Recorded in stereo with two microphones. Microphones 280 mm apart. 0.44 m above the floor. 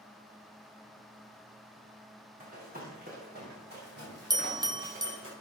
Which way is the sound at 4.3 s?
15° right (ahead or behind).